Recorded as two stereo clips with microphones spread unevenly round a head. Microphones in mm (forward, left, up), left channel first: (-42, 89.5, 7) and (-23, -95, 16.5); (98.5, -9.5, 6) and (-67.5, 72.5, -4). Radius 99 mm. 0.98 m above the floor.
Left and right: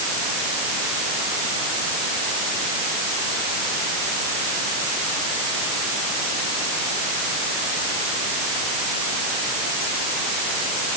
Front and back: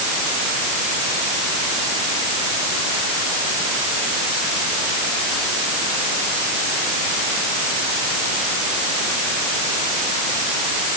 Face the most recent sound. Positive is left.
No sound to turn to.